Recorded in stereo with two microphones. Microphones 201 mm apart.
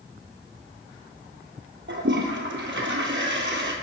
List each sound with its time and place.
1.9 s a toilet flushing: 60° right (ahead or behind), 1.1 m